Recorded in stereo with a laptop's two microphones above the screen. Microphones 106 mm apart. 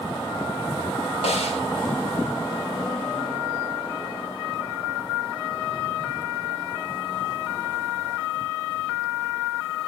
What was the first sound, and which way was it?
A snare drum, 85° left.